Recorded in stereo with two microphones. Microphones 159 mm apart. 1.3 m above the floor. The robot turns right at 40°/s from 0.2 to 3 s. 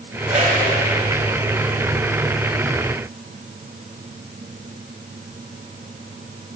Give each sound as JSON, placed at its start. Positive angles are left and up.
{"t": 0.3, "sound": "a whoosh", "side_deg": -40, "distance_m": 1.7}